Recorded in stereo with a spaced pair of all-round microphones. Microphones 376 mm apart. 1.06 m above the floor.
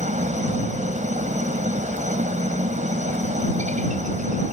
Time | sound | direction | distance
0.0 | a helicopter | 20° right (ahead or behind) | ?